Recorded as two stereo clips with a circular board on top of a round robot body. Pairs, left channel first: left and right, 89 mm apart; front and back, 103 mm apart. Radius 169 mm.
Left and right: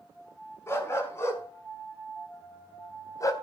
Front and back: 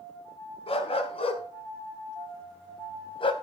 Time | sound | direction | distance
0.7 | a dog barking | 30° left | 4.5 m